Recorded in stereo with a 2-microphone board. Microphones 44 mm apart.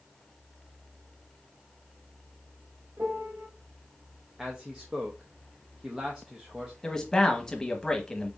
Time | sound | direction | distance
3.0 | a piano | 55° right (ahead or behind) | 1.2 m
4.4 | a man speaking | 20° right (ahead or behind) | 0.8 m
6.8 | a man speaking | 15° left (ahead or behind) | 1.0 m